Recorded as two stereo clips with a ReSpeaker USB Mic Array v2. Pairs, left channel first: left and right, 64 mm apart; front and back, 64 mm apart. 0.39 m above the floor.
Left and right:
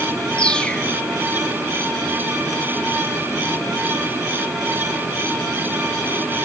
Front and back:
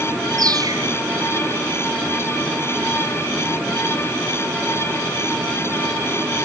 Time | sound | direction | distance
0.4 | a bird | 165° left | ?